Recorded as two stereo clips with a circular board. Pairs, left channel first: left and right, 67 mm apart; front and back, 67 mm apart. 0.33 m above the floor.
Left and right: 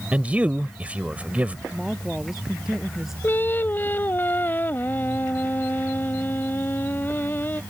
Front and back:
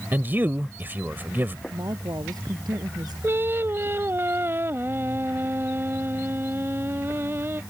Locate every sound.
0.1 s a man speaking: 140° right
1.7 s a woman speaking: 175° right
3.2 s singing: 140° left